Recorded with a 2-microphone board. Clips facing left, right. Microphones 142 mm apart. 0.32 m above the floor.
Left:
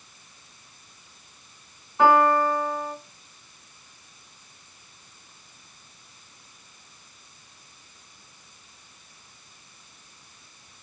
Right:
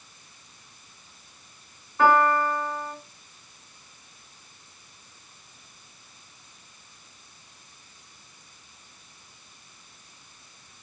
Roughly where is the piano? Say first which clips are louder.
Left 2 dB; centre.